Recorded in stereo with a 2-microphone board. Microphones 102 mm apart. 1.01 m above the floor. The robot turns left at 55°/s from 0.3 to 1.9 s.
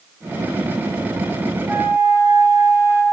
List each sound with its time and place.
1.7 s a flute: 15° right (ahead or behind), 1.0 m; by 3.0 s 25° right (ahead or behind), 1.0 m